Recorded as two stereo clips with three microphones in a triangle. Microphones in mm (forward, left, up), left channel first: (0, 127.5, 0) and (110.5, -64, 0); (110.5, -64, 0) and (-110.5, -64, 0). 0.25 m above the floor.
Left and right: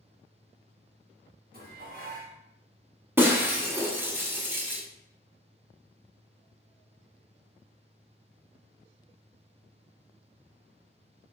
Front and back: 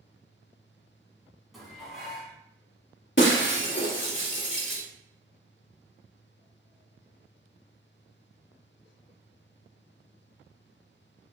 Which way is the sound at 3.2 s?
20° left.